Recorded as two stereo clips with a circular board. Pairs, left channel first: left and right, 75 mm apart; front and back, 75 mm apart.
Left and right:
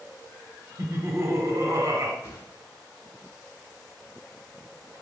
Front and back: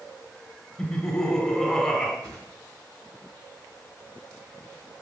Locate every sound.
0.8 s laughter: 80° right, 1.1 m
2.2 s a whoosh: 140° left, 2.5 m